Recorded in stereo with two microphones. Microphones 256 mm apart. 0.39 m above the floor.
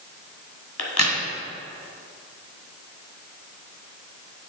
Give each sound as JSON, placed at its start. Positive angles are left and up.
{"t": 0.8, "sound": "a crack", "side_deg": 70, "distance_m": 1.5}